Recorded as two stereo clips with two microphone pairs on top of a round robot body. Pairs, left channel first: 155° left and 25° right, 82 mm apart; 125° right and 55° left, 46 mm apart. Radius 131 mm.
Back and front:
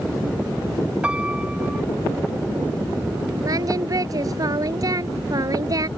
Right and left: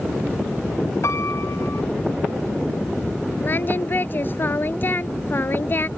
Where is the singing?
70° right.